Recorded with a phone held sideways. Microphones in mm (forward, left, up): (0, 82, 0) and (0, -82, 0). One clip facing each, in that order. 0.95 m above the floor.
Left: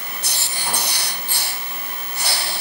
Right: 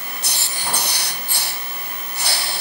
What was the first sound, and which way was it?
Only background noise.